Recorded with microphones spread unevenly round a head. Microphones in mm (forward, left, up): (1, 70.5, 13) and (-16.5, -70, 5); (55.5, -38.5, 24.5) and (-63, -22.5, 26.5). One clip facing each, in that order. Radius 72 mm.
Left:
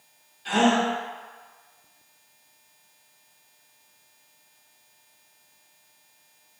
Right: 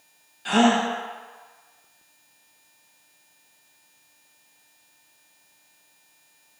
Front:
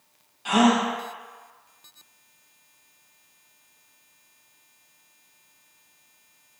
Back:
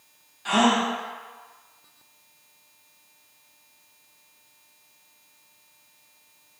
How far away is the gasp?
About 0.6 m.